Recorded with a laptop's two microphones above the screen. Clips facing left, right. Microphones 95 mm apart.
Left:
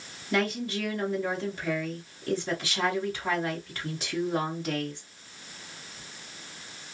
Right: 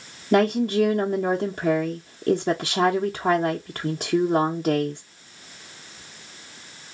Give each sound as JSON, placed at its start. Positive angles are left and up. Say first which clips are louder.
{"t": 0.3, "sound": "a woman speaking", "louder": "right 9 dB", "side_deg": -55, "distance_m": 0.7}